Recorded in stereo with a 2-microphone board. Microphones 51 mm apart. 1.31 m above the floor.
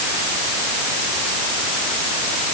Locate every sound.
Only background noise.